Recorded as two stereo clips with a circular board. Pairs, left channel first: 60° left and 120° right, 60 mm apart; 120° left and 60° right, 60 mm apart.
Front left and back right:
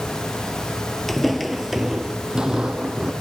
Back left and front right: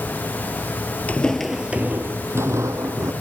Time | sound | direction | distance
1.1 | footsteps | 140° left | 0.5 m